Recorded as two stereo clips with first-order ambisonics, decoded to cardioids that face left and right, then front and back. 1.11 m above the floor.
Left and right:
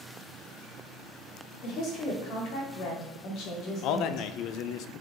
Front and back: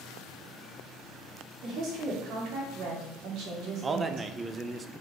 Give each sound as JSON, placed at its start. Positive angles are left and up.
{"t": 1.6, "sound": "a woman speaking", "azimuth_deg": 135, "distance_m": 2.5}
{"t": 3.8, "sound": "a man speaking", "azimuth_deg": 110, "distance_m": 0.6}